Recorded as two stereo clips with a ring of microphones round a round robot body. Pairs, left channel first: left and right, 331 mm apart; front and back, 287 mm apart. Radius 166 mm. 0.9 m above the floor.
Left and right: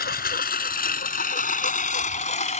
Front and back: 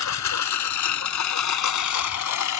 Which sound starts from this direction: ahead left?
A lawn mower, at 0.0 s.